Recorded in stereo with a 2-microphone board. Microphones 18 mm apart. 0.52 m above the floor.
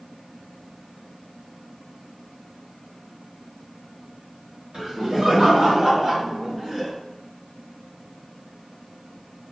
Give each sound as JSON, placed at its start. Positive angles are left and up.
{"t": 4.7, "sound": "laughter", "side_deg": -55, "distance_m": 1.5}